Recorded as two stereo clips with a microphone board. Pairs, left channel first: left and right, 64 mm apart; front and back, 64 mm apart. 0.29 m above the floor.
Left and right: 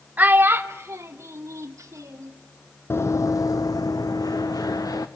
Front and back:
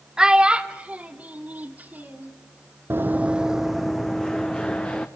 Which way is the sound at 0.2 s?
115° right.